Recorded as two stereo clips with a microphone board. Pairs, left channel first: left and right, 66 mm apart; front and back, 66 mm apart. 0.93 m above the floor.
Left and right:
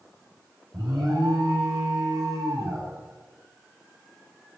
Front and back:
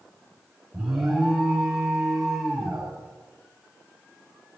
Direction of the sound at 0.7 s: 95° right.